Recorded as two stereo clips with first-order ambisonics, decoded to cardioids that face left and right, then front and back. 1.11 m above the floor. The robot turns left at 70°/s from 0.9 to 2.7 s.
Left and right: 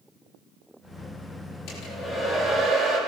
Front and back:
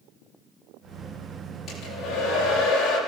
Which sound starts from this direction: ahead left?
A hair dryer, at 1.7 s.